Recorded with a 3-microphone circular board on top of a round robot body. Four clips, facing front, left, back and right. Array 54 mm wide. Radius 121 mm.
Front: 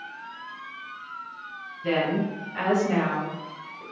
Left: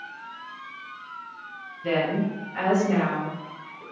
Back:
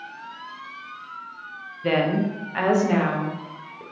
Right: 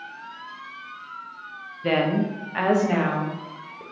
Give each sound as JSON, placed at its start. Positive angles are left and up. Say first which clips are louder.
{"t": 1.8, "sound": "a woman speaking", "louder": "right 2 dB, back 3 dB", "azimuth_deg": -125, "distance_m": 0.8}